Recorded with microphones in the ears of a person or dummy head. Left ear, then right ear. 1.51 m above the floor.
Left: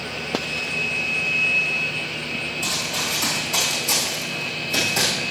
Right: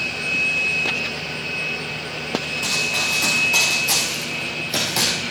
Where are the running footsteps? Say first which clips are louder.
Right 5 dB; 5° left (ahead or behind), 6 m; by 5.1 s 10° right (ahead or behind), 4.5 m.